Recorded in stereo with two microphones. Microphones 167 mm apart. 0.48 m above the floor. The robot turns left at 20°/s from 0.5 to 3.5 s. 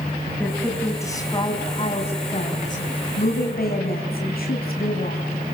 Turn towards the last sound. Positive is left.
turn(degrees=110)